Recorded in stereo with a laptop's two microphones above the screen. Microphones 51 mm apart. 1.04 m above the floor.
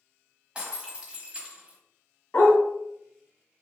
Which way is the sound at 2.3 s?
45° left (ahead or behind).